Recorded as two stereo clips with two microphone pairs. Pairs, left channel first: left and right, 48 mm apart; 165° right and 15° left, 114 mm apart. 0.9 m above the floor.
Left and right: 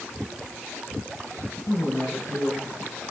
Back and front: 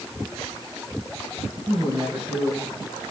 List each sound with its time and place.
1.7 s a woman speaking: 85° left, 6 m